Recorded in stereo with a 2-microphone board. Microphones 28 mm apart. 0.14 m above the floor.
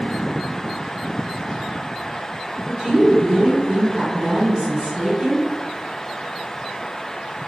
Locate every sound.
2.7 s a woman speaking: 25° right (ahead or behind), 1.8 m